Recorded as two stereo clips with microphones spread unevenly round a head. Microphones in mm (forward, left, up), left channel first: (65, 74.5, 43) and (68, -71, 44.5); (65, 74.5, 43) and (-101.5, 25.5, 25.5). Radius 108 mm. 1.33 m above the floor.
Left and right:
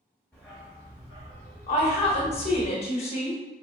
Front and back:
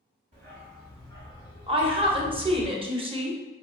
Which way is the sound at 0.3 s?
165° left.